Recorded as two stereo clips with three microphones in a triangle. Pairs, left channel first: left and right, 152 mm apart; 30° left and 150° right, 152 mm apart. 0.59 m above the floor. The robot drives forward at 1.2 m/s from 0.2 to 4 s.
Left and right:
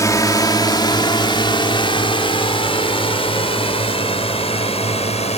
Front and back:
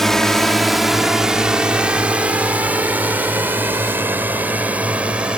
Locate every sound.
0.0 s a drone: 115° left; by 5.4 s 130° left